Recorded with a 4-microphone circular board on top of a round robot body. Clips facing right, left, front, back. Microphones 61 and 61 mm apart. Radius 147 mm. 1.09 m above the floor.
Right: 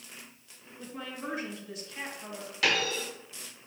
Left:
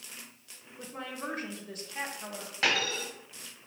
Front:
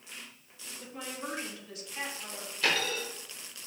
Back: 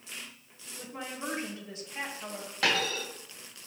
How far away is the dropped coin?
About 3 m.